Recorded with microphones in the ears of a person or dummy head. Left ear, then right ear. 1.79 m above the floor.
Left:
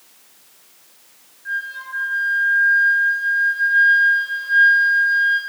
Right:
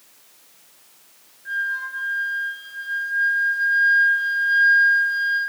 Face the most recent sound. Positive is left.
turn(degrees=5)  # may be behind; listen again after turning